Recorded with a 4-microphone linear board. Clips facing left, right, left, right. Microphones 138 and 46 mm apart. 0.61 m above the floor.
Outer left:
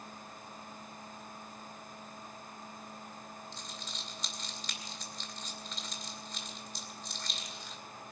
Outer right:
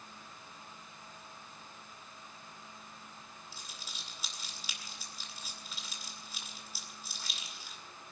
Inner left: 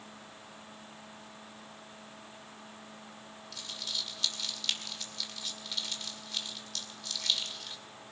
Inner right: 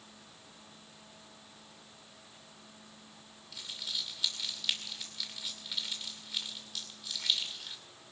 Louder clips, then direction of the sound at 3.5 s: Outer left 5 dB, even; 10° right (ahead or behind).